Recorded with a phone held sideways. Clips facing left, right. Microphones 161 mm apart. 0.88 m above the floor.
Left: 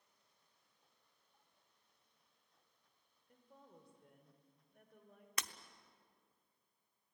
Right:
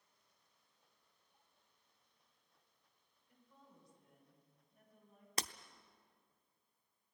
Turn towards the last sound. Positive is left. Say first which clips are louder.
# right 3 dB
turn(degrees=-30)  # may be behind; listen again after turning